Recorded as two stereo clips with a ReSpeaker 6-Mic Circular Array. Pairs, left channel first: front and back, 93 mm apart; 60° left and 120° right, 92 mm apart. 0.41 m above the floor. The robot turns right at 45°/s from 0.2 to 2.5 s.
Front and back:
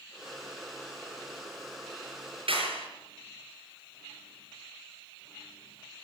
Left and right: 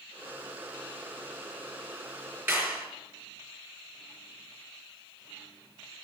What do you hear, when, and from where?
2.5 s a clap: 175° left, 5 m